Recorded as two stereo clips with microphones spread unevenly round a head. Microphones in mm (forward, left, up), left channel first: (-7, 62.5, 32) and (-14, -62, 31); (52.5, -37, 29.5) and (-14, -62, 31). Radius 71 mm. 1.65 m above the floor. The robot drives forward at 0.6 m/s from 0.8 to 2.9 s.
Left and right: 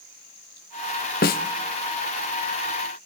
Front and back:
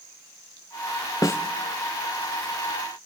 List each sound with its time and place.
1.2 s a snare drum: 85° left, 0.6 m; by 1.4 s 100° left, 0.6 m